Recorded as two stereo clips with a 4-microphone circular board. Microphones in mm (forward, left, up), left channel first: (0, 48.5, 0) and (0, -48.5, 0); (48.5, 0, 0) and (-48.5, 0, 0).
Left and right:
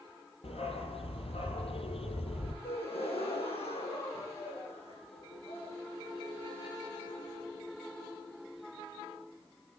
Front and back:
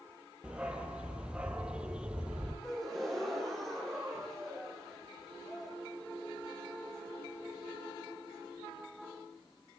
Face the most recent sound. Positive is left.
turn(degrees=85)